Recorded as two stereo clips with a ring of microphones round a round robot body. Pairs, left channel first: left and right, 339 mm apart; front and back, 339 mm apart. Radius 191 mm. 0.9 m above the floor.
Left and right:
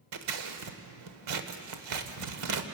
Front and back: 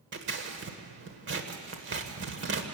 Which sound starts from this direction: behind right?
Scissors, at 0.1 s.